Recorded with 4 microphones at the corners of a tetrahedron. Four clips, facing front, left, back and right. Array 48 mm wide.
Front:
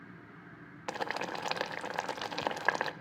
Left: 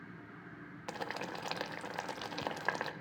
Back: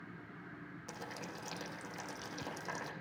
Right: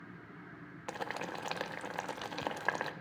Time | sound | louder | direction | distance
0.9 | boiling | right 1 dB, front 12 dB | 10° right | 0.7 m